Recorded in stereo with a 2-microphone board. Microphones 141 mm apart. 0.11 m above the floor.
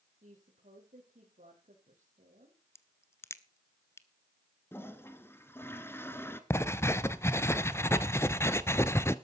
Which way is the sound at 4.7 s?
15° left (ahead or behind).